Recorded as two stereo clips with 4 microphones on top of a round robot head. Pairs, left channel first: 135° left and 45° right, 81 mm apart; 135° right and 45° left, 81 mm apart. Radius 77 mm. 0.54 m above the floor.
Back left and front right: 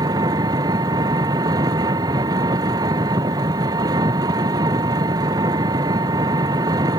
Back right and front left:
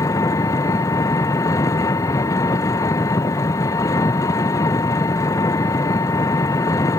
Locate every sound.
0.0 s an engine running: 85° right